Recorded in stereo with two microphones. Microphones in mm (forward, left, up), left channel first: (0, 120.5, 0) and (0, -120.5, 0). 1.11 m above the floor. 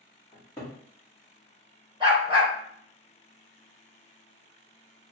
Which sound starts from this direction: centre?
A cupboard door, at 0.3 s.